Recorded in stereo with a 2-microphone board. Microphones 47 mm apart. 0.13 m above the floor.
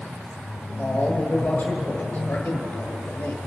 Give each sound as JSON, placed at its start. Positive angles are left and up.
{"t": 0.8, "sound": "a man speaking", "side_deg": 35, "distance_m": 1.5}